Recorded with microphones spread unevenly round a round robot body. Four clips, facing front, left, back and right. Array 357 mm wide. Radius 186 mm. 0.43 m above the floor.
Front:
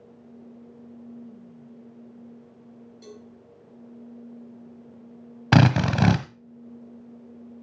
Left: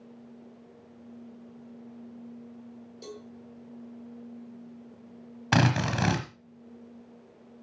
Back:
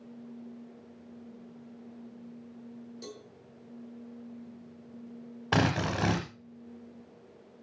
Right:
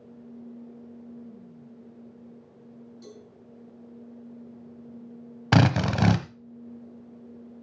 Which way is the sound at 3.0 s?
125° left.